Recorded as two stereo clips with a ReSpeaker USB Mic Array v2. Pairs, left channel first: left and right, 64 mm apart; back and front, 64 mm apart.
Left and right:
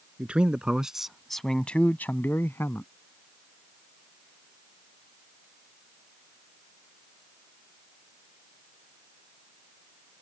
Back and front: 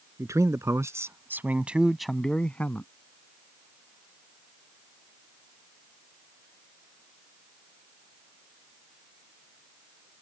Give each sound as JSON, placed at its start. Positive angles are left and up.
{"t": 0.2, "sound": "a man speaking", "azimuth_deg": -20}